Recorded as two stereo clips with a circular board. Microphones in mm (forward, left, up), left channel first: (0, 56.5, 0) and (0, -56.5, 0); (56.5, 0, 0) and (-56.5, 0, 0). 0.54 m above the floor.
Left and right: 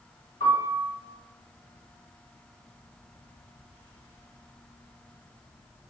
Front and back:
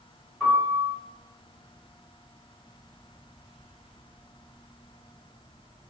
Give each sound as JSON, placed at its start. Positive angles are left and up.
{"t": 0.4, "sound": "a piano", "azimuth_deg": 85, "distance_m": 1.6}